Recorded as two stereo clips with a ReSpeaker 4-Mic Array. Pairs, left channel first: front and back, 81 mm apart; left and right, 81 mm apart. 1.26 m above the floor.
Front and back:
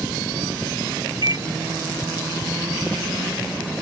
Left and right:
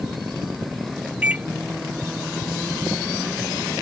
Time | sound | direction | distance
1.2 | a microwave | 160° right | ?